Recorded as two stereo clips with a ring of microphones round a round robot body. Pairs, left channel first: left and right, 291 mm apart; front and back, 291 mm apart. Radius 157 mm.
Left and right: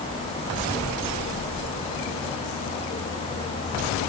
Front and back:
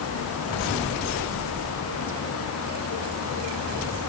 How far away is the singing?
I don't hear singing.